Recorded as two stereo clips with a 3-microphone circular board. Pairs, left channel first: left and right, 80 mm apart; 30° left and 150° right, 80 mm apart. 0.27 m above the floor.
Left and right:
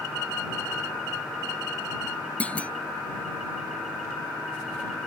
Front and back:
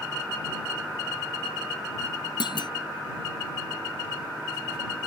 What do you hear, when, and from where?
2.4 s a clunk: 15° left